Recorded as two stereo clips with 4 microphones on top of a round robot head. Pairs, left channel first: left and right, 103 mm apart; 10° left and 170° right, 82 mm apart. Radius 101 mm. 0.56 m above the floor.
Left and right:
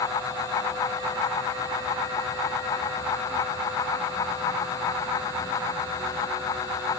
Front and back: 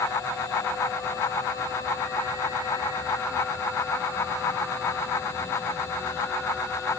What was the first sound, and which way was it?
Only background noise.